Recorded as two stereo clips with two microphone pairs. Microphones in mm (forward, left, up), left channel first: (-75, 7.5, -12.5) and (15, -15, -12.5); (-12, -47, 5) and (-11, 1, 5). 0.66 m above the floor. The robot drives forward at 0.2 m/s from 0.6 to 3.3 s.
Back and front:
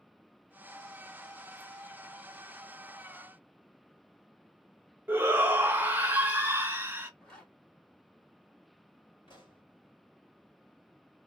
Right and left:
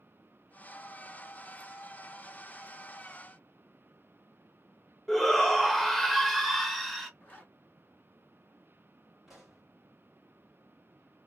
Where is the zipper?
120° right, 1.5 m.